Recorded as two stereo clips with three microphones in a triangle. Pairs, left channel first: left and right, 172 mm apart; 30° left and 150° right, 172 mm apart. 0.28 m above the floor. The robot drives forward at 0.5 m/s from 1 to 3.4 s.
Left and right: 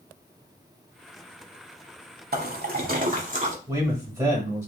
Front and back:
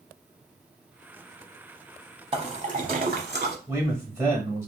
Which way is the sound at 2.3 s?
95° right.